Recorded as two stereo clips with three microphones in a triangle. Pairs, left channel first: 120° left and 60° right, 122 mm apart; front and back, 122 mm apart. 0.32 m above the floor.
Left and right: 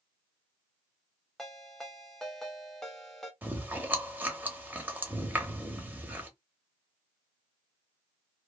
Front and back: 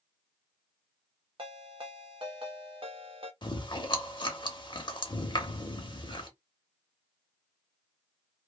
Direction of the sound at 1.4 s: 155° right.